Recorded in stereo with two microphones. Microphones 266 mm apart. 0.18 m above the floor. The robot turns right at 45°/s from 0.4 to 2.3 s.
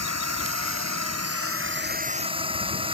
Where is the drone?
105° right; by 2.9 s 20° right.